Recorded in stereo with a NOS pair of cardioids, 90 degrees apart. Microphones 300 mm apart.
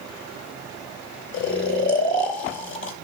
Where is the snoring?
40° left, 3 m.